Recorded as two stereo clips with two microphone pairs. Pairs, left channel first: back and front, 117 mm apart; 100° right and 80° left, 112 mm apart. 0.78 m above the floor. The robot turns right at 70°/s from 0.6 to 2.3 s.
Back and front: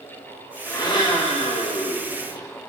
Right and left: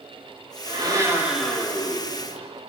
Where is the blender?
115° left, 4 m; by 2.5 s 130° right, 4 m.